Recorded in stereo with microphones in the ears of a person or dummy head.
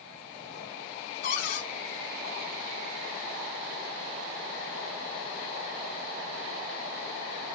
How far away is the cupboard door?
About 3 m.